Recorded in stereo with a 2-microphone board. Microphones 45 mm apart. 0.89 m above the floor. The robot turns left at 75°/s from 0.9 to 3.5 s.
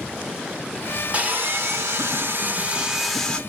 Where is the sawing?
35° right, 0.9 m; by 3.4 s 155° left, 0.9 m.